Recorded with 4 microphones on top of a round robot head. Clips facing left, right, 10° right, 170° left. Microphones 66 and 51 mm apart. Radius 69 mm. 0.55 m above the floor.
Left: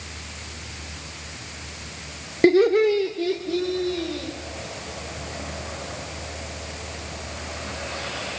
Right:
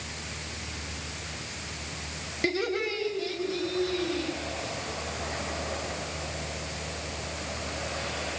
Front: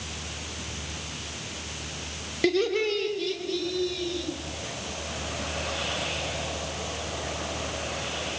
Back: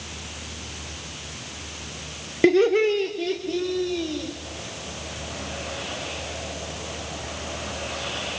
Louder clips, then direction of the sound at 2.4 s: Left 13 dB, back 7 dB; 120° left.